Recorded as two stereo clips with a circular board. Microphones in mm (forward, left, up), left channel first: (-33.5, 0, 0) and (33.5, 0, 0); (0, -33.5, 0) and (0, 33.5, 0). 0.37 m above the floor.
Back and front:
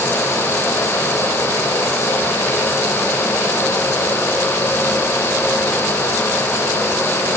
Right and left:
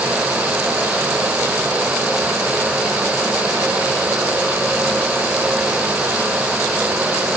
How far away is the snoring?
I don't hear snoring.